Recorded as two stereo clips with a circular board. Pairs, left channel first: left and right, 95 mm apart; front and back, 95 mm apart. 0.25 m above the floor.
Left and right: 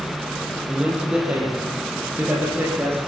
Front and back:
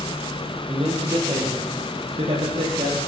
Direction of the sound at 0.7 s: 170° right.